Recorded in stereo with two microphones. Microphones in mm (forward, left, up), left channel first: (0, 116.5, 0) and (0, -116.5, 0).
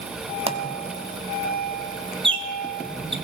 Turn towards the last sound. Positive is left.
turn(degrees=-25)  # may be behind; listen again after turning